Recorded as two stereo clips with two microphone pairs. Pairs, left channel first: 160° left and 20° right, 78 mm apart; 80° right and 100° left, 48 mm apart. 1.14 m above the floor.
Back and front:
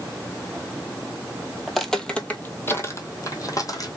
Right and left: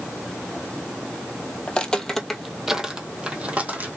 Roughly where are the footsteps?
Right.